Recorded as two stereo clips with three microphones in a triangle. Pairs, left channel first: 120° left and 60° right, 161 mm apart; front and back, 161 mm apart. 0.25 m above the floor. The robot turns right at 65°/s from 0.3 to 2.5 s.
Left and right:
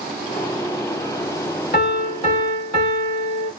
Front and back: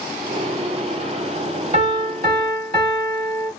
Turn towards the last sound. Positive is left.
turn(degrees=-170)